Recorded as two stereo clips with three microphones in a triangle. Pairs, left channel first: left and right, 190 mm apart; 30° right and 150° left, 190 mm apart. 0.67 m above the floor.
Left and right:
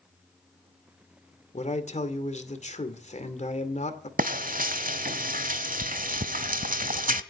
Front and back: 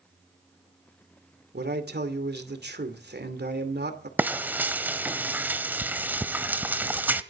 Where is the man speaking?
135° left, 2.5 m.